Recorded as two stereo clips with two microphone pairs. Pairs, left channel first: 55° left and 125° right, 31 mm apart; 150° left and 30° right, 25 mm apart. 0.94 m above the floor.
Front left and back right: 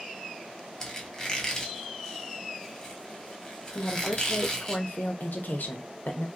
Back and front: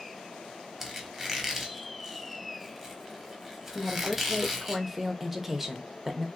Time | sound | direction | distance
0.8 | a squeak | 30° left | 0.8 m
3.8 | a woman speaking | 50° left | 0.7 m